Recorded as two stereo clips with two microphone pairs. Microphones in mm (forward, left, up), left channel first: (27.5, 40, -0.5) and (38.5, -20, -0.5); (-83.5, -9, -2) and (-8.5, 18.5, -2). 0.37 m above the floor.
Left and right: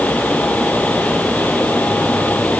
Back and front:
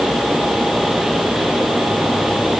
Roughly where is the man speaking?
I don't hear a man speaking.